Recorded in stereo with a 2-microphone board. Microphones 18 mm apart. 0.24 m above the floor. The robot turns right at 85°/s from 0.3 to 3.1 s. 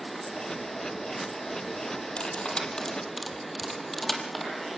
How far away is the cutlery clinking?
About 4.5 m.